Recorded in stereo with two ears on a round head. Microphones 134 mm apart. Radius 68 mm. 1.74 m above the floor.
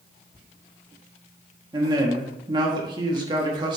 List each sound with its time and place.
1.7 s a man speaking: 30° right (ahead or behind), 1.3 m